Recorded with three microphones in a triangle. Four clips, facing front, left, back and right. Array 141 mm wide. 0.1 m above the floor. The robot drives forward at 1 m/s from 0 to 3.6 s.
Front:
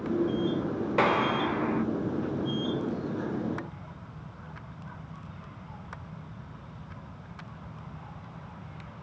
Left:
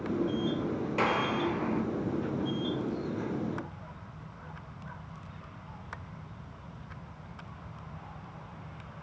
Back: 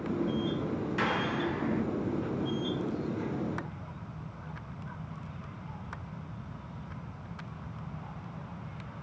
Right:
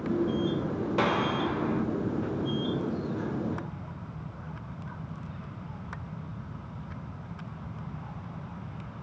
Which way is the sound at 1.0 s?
10° right.